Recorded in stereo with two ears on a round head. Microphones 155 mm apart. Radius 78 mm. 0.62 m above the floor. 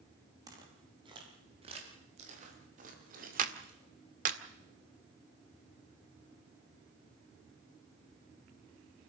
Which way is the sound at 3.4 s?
45° right (ahead or behind).